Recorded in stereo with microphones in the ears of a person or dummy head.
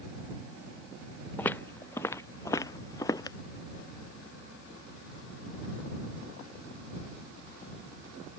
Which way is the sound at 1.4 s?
10° left (ahead or behind).